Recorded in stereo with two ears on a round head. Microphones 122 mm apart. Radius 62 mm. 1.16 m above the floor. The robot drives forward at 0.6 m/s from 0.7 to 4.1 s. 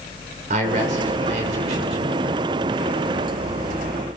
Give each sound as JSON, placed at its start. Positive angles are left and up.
{"t": 0.5, "sound": "a man speaking", "side_deg": -65, "distance_m": 4.5}